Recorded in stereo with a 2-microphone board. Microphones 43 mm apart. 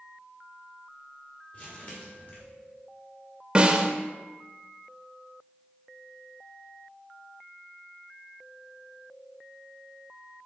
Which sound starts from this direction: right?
A snare drum, at 3.5 s.